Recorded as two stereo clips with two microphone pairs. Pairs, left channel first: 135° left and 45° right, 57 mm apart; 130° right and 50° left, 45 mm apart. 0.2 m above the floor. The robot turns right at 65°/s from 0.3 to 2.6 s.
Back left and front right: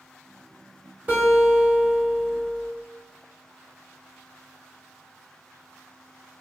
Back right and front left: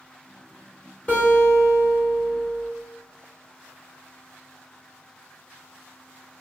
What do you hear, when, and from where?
1.1 s a guitar: 95° right, 2.0 m; by 2.7 s 5° left, 2.0 m